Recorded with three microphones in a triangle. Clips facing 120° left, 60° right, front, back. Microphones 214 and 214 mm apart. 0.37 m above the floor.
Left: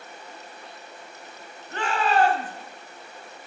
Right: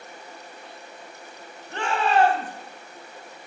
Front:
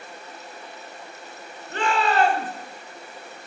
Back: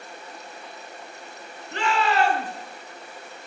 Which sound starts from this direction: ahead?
A shout, at 1.7 s.